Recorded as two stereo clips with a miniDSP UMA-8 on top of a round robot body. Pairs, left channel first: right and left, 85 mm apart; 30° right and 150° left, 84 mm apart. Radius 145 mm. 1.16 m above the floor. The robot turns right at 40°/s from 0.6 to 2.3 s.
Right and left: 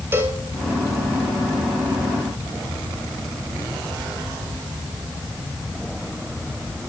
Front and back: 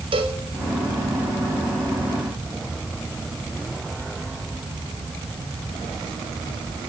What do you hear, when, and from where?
0.1 s a cowbell: 155° left, 3 m